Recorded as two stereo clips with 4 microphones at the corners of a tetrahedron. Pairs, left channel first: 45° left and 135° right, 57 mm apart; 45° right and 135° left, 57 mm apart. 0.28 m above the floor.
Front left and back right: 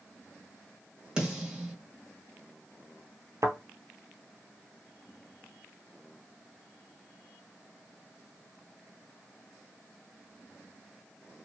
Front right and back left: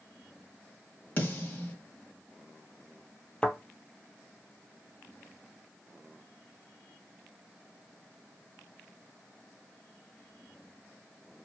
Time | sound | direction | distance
1.2 | a snare drum | 75° right | 1.3 m
3.4 | a thud | 115° right | 0.6 m